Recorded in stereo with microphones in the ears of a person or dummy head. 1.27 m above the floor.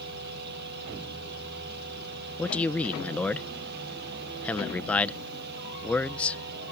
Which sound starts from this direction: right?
A fan, at 0.0 s.